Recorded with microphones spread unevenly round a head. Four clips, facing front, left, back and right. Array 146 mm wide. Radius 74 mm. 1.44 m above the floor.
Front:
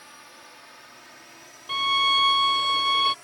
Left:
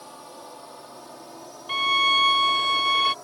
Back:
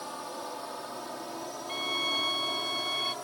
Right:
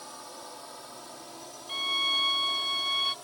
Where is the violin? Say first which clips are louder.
Left 12 dB, front 12 dB; 40° left.